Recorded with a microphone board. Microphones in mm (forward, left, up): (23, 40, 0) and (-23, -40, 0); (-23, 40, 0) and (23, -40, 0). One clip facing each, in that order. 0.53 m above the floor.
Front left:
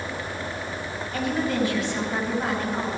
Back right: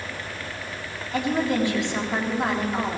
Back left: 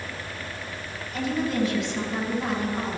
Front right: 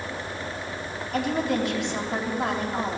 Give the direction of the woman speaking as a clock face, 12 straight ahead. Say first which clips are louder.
Back right 2 dB, front right 1 dB; 2 o'clock.